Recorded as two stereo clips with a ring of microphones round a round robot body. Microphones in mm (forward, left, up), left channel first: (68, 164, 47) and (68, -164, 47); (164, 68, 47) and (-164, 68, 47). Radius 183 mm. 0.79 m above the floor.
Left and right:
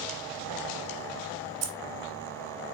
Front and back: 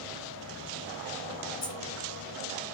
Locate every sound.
1.6 s keys jangling: 65° right, 0.6 m